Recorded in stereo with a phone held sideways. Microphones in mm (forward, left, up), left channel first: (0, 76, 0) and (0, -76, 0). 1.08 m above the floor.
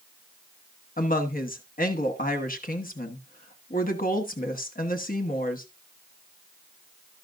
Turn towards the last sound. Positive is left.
turn(degrees=65)  # may be behind; listen again after turning